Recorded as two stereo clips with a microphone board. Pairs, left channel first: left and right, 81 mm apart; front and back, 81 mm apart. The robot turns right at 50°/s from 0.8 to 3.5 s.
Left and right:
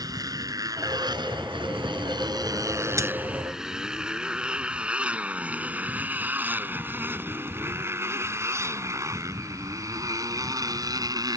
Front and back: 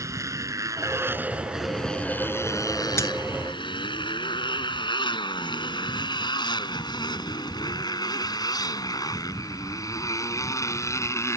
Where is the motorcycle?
130° right; by 11.4 s 55° right.